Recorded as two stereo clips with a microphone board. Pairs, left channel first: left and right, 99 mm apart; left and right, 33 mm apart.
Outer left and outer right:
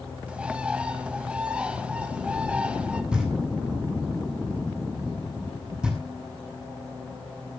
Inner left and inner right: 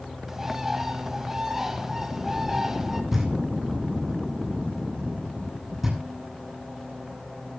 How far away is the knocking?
About 9 m.